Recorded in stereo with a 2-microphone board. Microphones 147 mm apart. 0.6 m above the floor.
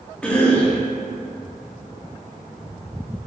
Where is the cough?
10° left (ahead or behind), 0.7 m.